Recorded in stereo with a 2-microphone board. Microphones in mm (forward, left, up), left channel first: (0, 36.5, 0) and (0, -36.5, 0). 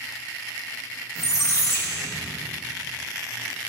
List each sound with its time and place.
1.1 s a squeak: 40° left (ahead or behind), 1.1 m